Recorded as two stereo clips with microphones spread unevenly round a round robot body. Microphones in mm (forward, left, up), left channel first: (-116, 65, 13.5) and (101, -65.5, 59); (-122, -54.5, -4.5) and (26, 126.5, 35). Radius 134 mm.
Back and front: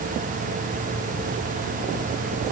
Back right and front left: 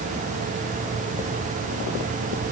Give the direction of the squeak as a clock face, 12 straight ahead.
I don't hear a squeak.